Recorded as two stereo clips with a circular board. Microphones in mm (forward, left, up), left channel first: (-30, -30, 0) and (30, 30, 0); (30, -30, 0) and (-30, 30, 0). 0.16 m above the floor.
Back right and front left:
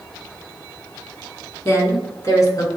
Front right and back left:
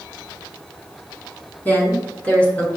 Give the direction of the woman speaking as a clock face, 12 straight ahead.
3 o'clock.